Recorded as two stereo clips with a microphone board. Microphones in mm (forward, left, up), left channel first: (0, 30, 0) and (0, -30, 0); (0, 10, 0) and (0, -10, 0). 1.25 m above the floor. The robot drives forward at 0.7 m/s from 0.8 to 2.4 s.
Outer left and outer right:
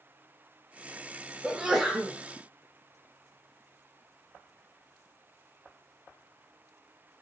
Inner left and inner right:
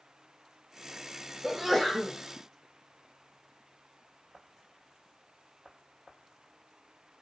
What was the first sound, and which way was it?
A sneeze, 10° right (ahead or behind).